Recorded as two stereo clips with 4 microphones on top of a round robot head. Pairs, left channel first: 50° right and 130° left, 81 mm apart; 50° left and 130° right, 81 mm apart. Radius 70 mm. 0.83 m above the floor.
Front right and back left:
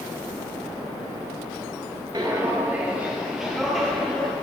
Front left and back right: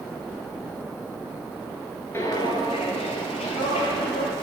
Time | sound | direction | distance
2.1 | footsteps | 100° left | 0.8 m